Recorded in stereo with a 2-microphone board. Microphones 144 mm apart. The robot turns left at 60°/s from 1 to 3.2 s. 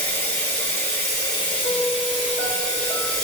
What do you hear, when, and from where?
0.0 s running water: 145° left, 1.3 m; by 3.2 s 15° left, 1.3 m
1.6 s a piano: 20° left, 1.3 m; by 3.1 s 70° right, 1.3 m